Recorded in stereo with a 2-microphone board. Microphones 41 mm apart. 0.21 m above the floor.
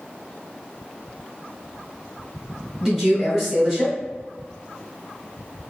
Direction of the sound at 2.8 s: 10° right (ahead or behind).